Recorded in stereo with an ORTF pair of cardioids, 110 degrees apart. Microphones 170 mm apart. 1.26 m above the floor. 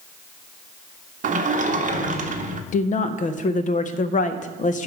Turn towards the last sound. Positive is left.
turn(degrees=50)